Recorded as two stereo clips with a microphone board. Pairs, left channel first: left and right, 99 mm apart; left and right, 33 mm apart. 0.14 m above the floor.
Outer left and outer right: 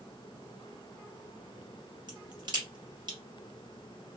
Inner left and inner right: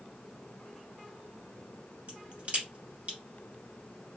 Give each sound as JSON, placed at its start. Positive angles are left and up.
{"t": 2.1, "sound": "a crack", "side_deg": -50, "distance_m": 1.9}